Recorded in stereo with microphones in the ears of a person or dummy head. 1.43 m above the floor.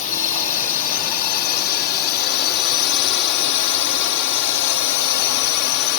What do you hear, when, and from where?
0.0 s a drone: 45° left (ahead or behind); by 6.0 s 70° left (ahead or behind)